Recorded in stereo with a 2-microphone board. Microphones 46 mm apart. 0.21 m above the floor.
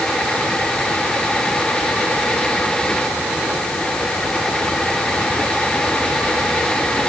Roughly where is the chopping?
I don't hear chopping.